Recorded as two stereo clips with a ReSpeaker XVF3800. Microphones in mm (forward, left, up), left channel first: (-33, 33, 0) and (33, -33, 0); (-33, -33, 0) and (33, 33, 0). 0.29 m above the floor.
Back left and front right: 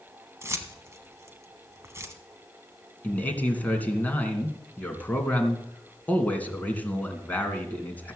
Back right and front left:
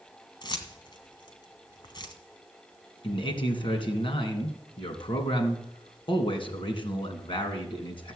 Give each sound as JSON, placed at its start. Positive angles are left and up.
{"t": 0.4, "sound": "keys jangling", "azimuth_deg": -105, "distance_m": 1.6}
{"t": 3.0, "sound": "a man speaking", "azimuth_deg": -155, "distance_m": 2.5}